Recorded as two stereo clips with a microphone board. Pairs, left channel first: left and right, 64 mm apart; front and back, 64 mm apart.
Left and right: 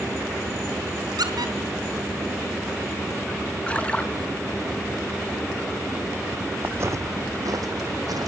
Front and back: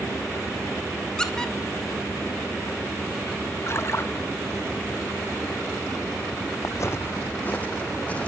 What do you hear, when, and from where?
1.2 s a squeak: 80° right, 3.5 m
3.7 s a splash: 25° left, 1.7 m
6.6 s footsteps: 30° right, 0.6 m; by 8.3 s 70° right, 2.5 m